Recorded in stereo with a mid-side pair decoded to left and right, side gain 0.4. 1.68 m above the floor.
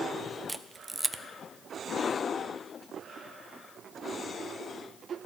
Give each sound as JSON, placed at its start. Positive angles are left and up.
{"t": 0.5, "sound": "a camera shutter", "azimuth_deg": -15, "distance_m": 0.8}